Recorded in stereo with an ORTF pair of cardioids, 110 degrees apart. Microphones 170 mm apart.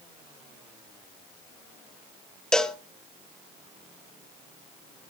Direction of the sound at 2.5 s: 5° left.